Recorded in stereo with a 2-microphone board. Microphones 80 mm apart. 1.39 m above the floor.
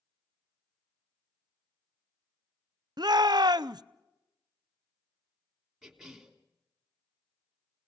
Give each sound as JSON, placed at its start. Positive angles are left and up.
{"t": 3.0, "sound": "a shout", "side_deg": -60, "distance_m": 0.6}
{"t": 5.8, "sound": "a cough", "side_deg": 0, "distance_m": 3.0}